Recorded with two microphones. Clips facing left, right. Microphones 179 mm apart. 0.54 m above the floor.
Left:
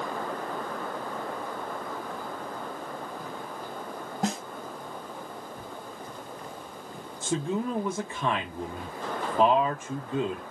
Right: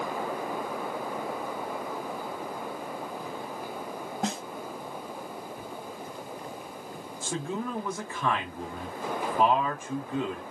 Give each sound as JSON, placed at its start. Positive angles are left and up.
{"t": 4.2, "sound": "a snare drum", "side_deg": 5, "distance_m": 1.0}
{"t": 7.2, "sound": "a man speaking", "side_deg": 20, "distance_m": 0.8}